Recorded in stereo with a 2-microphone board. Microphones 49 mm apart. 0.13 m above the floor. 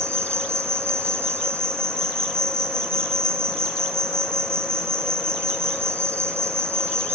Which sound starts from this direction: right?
An insect, at 0.0 s.